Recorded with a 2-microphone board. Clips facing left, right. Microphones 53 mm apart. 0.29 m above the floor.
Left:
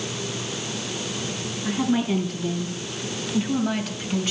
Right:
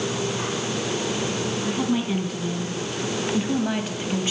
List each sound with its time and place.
1.6 s a woman speaking: 5° right (ahead or behind), 3.5 m; by 4.3 s 20° right (ahead or behind), 1.9 m